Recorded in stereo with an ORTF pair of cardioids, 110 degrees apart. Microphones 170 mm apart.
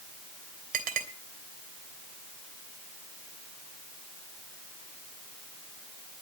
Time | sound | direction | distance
0.7 | a clink | 60° right | 3 m